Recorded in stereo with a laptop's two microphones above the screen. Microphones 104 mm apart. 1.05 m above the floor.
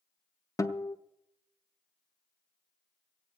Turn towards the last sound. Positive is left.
turn(degrees=30)  # may be behind; listen again after turning